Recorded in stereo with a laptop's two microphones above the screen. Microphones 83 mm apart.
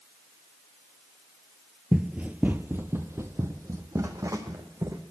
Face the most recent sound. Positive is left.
turn(degrees=-45)  # may be behind; listen again after turning